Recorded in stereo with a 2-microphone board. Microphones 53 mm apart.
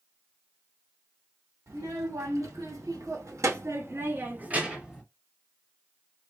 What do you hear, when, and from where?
1.7 s a child speaking: 80° right, 1.9 m; by 5.0 s 10° right (ahead or behind), 1.0 m